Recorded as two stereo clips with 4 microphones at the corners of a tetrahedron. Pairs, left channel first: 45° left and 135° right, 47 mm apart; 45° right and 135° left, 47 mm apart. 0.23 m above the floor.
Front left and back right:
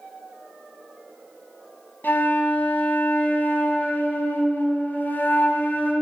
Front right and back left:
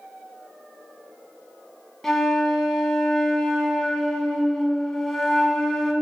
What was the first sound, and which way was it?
A flute, 35° left.